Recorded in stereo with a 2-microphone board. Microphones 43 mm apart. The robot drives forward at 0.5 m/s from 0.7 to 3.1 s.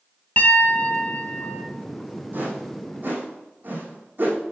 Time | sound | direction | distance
0.4 | a piano | 35° left (ahead or behind) | 1.3 m
2.3 | a whoosh | 55° right (ahead or behind) | 4 m